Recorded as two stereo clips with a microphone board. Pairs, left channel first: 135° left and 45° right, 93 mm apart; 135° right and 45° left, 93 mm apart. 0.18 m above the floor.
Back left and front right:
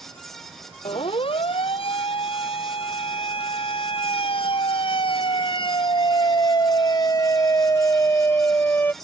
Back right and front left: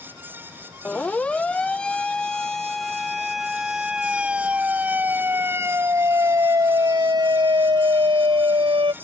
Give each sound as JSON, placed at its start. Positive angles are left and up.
{"t": 0.8, "sound": "a siren", "azimuth_deg": 150}